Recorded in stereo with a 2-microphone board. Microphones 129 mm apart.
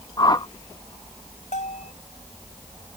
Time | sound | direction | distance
0.2 | a whoosh | 30° left (ahead or behind) | ?
1.5 | a bell | 75° left (ahead or behind) | ?